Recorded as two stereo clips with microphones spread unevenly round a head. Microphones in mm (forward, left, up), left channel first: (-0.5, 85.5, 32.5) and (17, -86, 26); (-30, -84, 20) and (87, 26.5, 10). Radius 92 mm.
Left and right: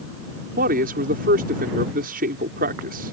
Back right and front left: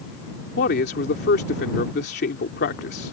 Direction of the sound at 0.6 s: 120° right.